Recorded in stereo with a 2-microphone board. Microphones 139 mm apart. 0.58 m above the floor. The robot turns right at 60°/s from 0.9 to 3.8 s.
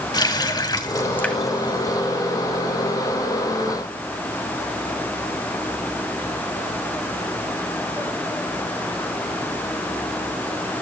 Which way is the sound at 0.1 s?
30° left (ahead or behind).